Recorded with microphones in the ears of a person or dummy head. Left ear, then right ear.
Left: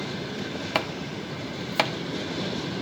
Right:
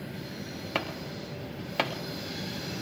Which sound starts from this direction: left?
Chopping, at 0.8 s.